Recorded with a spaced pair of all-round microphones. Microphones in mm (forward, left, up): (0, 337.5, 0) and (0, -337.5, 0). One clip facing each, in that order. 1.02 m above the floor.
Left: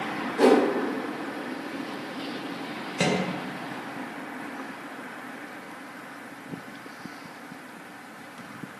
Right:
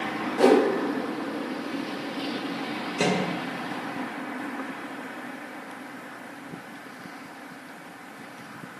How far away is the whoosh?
About 0.7 m.